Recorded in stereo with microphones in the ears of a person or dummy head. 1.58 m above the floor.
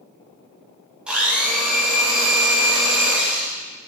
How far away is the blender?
About 2 m.